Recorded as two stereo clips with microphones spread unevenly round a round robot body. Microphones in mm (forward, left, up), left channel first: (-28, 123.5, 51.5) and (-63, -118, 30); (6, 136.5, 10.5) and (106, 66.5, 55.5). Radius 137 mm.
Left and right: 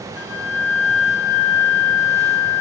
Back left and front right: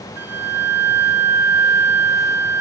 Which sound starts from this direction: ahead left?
A flute, at 0.2 s.